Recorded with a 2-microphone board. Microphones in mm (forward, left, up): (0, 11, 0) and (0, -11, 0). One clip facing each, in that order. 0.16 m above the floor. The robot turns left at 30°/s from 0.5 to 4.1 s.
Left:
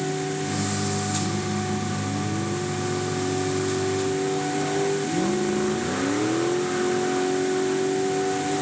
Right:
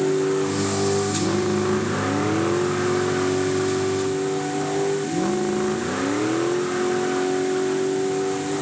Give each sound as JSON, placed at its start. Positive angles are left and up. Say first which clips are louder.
{"t": 0.0, "sound": "a vehicle", "louder": "right 7 dB", "azimuth_deg": -60}